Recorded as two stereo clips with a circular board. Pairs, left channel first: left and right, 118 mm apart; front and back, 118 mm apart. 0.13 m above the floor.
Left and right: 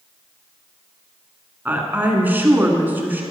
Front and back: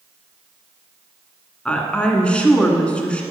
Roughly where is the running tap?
No running tap in this recording.